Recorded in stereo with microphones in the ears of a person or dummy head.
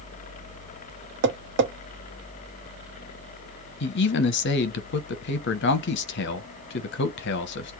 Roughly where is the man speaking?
Left.